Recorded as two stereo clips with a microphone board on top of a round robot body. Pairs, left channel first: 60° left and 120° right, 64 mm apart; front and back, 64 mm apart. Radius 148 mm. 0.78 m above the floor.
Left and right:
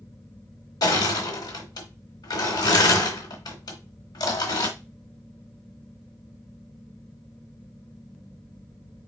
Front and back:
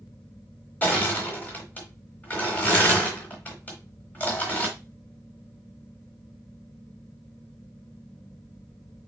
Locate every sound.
0.8 s crushing: 70° left, 1.1 m